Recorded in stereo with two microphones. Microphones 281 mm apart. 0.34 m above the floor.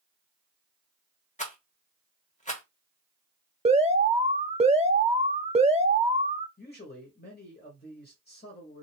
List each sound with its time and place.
1.4 s a rattle: 25° left (ahead or behind), 1.2 m
3.6 s an alarm: 25° right (ahead or behind), 0.6 m
6.6 s a man speaking: 35° left (ahead or behind), 1.3 m